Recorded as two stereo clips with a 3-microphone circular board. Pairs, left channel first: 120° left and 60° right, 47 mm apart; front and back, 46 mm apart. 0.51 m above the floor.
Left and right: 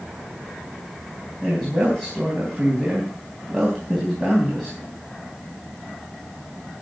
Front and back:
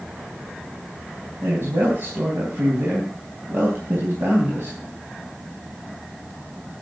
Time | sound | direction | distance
1.4 | a man speaking | 160° right | 4 m